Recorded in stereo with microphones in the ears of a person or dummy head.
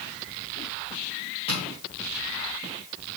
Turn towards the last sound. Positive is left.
turn(degrees=25)  # may be behind; listen again after turning